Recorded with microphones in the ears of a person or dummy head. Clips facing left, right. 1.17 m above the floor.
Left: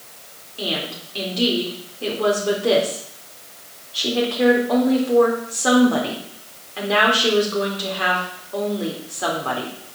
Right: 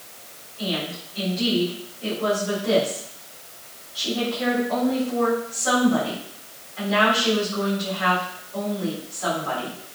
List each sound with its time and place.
0.6 s a woman speaking: 75° left (ahead or behind), 4 m